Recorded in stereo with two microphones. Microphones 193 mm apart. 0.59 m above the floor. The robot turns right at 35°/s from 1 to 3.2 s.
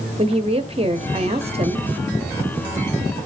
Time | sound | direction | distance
0.2 | a woman speaking | 30° right (ahead or behind) | 1.2 m